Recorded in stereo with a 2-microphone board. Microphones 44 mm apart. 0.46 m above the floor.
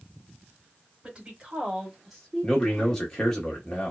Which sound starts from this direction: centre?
A man speaking, at 2.4 s.